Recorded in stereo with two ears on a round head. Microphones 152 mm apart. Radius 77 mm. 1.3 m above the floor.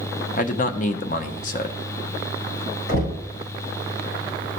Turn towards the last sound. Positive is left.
turn(degrees=80)